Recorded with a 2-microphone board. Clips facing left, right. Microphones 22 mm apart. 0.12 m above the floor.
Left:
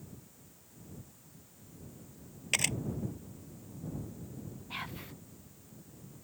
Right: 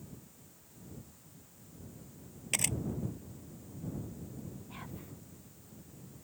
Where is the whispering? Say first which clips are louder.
Left 6 dB; 70° left (ahead or behind).